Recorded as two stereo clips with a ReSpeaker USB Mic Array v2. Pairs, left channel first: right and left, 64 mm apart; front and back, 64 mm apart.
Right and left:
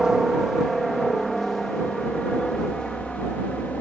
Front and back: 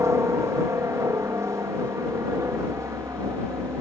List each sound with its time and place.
0.0 s a helicopter: 170° left; by 3.8 s 160° right